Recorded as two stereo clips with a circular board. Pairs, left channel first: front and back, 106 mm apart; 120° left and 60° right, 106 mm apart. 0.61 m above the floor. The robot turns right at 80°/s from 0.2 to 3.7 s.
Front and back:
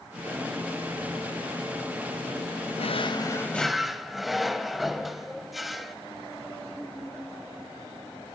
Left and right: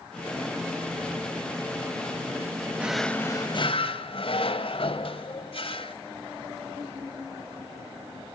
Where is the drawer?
15° left, 1.0 m; by 6.0 s 90° left, 1.0 m.